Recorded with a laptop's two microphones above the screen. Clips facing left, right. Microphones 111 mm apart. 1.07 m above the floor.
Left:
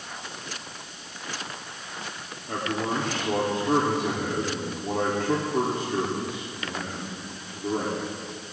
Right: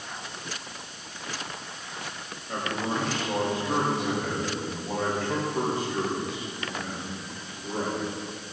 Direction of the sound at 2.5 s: 65° left (ahead or behind).